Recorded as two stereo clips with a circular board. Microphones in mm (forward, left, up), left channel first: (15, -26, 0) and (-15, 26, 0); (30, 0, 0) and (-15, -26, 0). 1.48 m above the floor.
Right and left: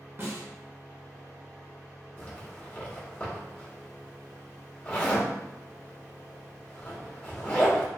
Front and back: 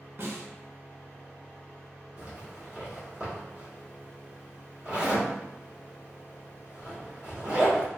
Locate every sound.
0.2 s a snare drum: 170° left, 0.7 m
2.2 s a zipper: 100° right, 1.1 m